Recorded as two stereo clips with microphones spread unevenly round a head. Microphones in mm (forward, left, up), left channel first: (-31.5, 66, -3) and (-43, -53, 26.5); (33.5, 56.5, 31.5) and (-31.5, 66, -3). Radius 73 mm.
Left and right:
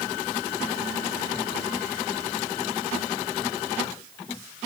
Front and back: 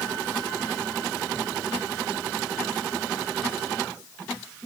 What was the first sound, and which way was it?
Only background noise.